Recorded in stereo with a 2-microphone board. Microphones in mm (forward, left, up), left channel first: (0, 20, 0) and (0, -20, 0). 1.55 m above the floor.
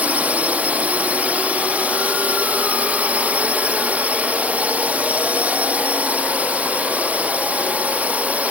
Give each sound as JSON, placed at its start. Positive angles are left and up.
{"t": 0.0, "sound": "a drone", "side_deg": -35}